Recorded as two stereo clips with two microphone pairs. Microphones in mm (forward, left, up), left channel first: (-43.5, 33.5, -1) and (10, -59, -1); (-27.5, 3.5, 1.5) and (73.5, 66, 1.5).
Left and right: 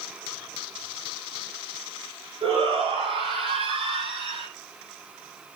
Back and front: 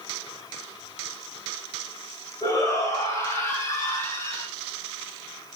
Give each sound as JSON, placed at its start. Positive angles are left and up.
{"t": 2.4, "sound": "a shout", "azimuth_deg": -85, "distance_m": 6.5}